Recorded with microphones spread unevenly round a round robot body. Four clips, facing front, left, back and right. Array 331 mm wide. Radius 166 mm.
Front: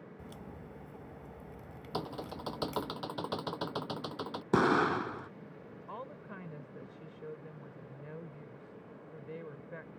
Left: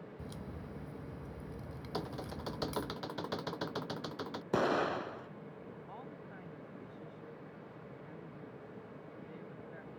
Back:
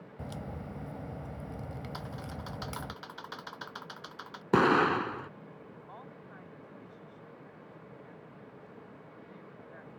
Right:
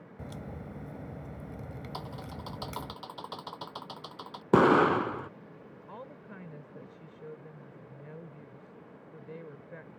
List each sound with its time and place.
0.2 s a crack: 145° right
1.9 s typing on a keyboard: 30° left
4.5 s an explosion: 95° right
5.9 s a woman speaking: 40° right